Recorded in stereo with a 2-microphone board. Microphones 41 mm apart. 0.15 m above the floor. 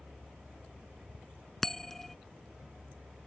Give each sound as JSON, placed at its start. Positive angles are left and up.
{"t": 1.6, "sound": "a bell", "side_deg": 10}